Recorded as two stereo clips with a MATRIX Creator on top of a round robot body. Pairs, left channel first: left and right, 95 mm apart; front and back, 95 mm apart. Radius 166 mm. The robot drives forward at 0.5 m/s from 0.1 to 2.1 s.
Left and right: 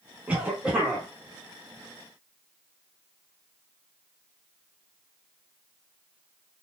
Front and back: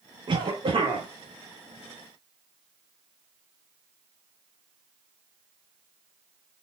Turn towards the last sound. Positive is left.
turn(degrees=-170)